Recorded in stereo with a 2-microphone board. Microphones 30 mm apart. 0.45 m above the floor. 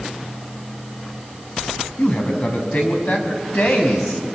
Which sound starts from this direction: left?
A man speaking, at 2.0 s.